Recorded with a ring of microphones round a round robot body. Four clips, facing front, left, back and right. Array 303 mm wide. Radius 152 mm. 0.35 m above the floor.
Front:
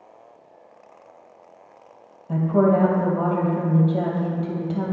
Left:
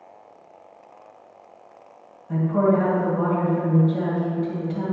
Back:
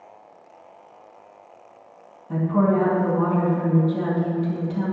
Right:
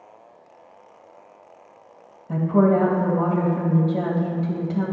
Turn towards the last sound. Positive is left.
turn(degrees=-35)